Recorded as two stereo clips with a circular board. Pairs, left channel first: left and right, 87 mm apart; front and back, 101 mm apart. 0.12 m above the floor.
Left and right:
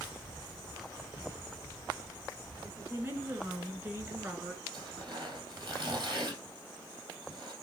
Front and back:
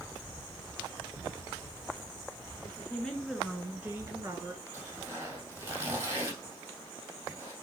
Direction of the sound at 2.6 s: 45° right.